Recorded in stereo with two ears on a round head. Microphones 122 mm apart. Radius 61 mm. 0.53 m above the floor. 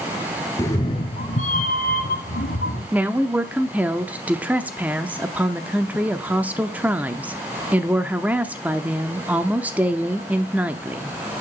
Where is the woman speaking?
10° right (ahead or behind), 0.7 m.